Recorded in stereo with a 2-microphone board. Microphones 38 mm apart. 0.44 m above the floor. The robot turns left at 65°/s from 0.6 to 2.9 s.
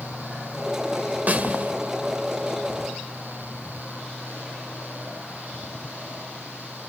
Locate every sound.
1.3 s a snare drum: 50° right (ahead or behind), 1.9 m